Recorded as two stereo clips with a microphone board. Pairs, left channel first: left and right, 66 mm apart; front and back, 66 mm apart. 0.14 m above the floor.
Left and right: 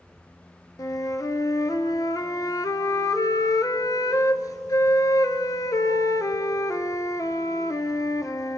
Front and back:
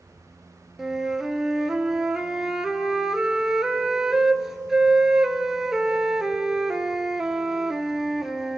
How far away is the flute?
About 0.6 m.